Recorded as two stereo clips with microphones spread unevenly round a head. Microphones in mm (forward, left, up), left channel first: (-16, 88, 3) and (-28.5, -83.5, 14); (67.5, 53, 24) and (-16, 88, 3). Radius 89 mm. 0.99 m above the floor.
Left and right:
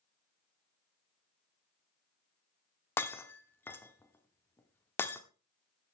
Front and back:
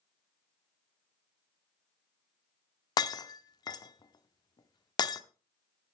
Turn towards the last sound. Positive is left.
turn(degrees=5)